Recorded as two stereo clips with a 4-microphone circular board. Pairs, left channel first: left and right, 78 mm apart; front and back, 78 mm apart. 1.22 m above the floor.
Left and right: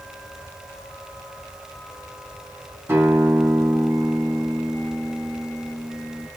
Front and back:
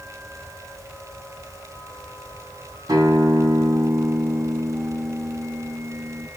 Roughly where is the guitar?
Behind right.